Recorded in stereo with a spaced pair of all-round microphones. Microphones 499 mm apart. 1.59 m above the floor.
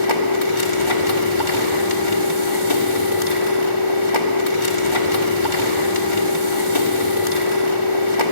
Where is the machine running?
70° left (ahead or behind), 2.5 m.